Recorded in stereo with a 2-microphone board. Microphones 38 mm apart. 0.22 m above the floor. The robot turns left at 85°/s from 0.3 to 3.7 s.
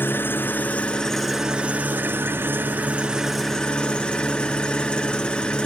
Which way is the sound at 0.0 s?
85° left.